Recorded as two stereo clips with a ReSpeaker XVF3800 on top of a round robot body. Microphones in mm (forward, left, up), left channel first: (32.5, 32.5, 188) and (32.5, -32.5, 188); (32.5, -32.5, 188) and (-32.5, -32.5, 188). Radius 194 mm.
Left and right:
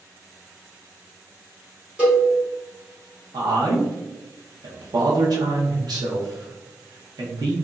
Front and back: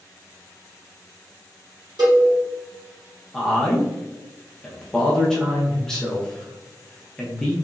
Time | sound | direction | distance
2.0 | a cowbell | 165° right | 1.6 m
3.3 | a man speaking | 80° right | 0.7 m